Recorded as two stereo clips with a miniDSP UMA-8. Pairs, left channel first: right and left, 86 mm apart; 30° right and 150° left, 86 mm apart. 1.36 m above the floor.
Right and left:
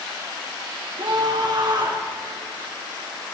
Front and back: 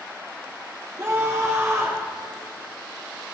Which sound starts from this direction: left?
A scream, at 1.0 s.